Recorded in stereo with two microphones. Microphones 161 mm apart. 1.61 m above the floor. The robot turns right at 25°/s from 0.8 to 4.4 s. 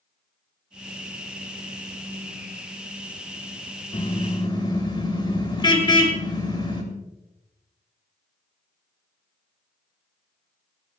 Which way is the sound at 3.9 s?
40° left (ahead or behind).